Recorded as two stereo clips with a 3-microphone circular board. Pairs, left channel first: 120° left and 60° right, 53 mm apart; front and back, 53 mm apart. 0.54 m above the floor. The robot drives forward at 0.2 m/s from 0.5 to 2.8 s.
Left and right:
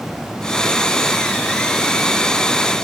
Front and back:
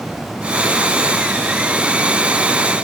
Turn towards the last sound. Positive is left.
No sound to turn to.